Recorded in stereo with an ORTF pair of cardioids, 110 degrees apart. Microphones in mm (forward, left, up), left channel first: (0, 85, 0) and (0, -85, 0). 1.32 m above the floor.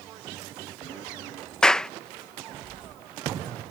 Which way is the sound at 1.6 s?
5° left.